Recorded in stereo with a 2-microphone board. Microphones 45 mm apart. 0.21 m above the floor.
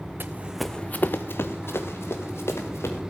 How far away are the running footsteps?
About 0.9 m.